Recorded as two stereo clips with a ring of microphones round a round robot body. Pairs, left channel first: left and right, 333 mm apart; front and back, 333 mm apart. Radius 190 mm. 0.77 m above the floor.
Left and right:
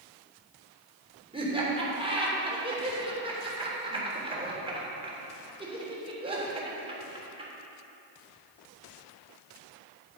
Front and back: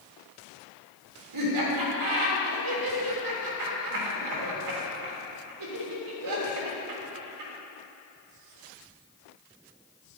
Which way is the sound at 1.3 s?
165° right.